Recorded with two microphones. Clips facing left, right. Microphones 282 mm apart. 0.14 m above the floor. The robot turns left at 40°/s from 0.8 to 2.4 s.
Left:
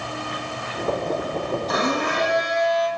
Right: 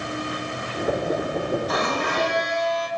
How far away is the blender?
About 3 m.